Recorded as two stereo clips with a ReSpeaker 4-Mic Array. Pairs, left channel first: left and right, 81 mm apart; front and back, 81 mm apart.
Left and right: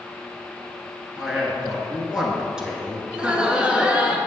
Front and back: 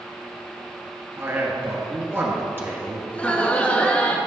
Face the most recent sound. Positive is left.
turn(degrees=-40)